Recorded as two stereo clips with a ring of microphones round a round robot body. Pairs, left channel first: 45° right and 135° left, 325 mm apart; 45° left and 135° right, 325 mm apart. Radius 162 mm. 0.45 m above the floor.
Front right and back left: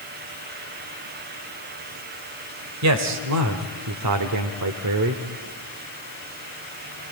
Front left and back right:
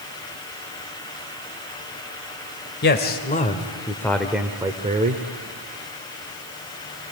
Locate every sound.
2.8 s a man speaking: 100° left, 1.8 m; by 5.2 s 170° left, 1.4 m